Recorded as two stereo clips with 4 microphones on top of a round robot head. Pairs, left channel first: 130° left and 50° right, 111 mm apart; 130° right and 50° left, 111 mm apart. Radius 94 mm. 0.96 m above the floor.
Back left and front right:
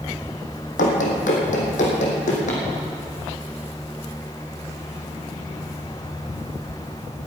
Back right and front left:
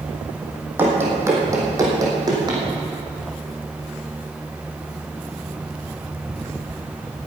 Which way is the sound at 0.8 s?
125° left.